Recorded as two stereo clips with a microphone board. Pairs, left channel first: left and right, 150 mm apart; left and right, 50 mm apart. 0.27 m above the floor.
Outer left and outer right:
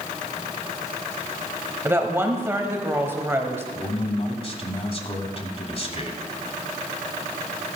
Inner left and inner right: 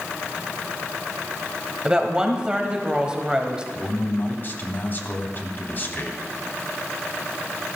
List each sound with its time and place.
1.9 s a woman speaking: 15° right (ahead or behind), 1.1 m
3.8 s a man speaking: 40° left (ahead or behind), 1.4 m